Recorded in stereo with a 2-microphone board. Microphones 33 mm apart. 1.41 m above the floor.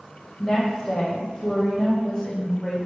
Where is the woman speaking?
10° left (ahead or behind), 1.4 m.